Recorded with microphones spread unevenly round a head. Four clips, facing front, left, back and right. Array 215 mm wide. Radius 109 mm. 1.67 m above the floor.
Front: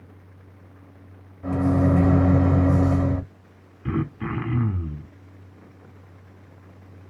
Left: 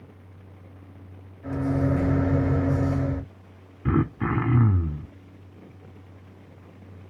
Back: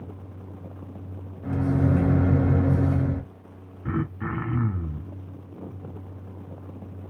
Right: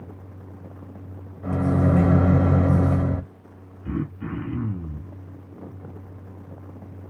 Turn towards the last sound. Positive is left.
turn(degrees=70)